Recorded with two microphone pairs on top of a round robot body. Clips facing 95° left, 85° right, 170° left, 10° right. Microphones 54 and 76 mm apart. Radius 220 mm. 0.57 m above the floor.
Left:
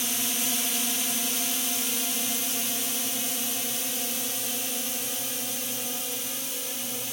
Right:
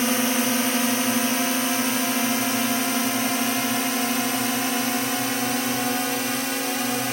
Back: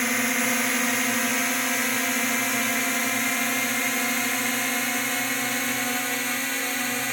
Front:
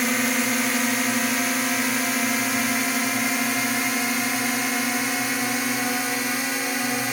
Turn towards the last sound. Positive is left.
turn(degrees=-90)